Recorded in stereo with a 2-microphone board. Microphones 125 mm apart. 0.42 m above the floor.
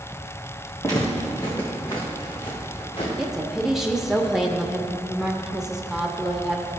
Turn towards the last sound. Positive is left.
turn(degrees=-5)  # may be behind; listen again after turning